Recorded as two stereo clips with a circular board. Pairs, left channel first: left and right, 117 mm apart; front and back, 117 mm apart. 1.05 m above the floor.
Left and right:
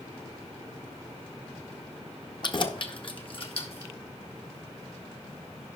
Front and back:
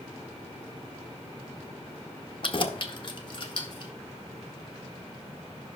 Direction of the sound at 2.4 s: 40° left.